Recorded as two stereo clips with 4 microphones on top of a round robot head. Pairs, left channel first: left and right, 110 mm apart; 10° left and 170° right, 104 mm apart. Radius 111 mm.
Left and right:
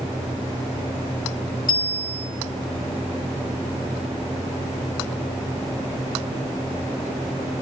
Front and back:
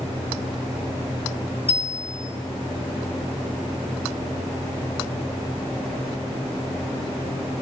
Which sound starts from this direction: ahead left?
A bicycle bell, at 1.7 s.